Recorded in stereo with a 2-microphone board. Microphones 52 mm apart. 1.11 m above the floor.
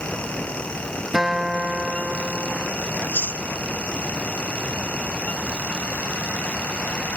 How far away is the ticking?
No ticking in this recording.